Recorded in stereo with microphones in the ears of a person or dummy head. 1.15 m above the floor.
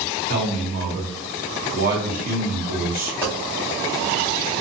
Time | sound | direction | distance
0.3 | a man speaking | 35° right (ahead or behind) | 1.0 m
3.2 | a dropped coin | 10° right (ahead or behind) | 1.0 m